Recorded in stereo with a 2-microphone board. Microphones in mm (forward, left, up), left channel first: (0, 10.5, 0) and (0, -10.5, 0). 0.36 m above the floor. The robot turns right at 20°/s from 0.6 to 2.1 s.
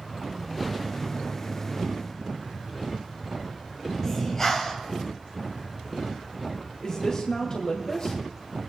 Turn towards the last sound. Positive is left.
turn(degrees=40)  # may be behind; listen again after turning